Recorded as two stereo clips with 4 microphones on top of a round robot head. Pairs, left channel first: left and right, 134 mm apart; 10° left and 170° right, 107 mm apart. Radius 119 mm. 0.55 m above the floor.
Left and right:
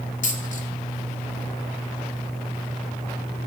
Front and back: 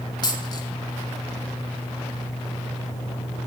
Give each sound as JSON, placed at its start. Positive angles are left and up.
{"t": 0.2, "sound": "a dropped coin", "azimuth_deg": 60, "distance_m": 1.2}